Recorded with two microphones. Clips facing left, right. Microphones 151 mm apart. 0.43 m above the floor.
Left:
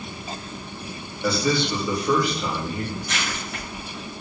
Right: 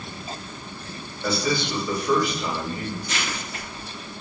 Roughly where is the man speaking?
Centre.